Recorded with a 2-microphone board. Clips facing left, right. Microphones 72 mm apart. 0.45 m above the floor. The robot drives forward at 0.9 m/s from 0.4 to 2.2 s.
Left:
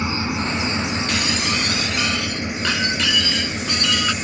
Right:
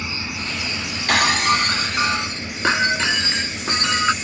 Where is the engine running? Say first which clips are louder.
Left 6 dB; 35° left (ahead or behind); by 4.2 s 20° left (ahead or behind).